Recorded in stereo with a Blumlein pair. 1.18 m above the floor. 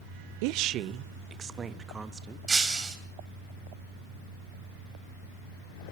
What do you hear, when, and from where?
0.4 s a woman speaking: 45° right, 0.6 m; by 2.4 s 10° right, 1.6 m
2.5 s breaking glass: 15° right, 3.5 m